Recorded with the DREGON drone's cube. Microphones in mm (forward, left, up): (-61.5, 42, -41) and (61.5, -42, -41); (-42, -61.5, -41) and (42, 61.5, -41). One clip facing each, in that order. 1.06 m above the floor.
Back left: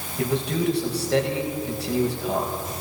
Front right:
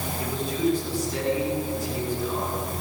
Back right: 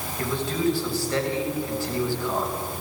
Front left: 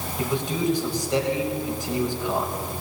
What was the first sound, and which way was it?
A man speaking, 130° left.